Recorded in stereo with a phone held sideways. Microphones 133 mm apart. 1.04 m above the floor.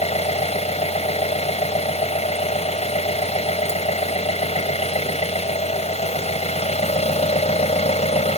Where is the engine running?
55° left (ahead or behind).